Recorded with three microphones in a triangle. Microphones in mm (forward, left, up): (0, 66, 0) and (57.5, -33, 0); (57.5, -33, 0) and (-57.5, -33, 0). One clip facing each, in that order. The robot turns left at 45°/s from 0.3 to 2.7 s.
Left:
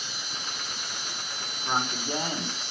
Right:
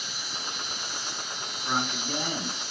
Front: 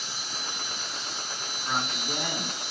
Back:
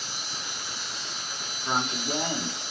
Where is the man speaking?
150° left, 0.9 m; by 2.6 s 110° left, 0.9 m.